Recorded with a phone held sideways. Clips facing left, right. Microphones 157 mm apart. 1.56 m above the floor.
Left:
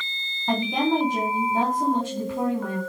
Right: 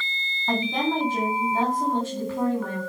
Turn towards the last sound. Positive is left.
turn(degrees=15)  # may be behind; listen again after turning